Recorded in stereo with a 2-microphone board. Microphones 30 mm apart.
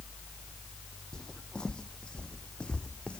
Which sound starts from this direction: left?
Footsteps, at 1.1 s.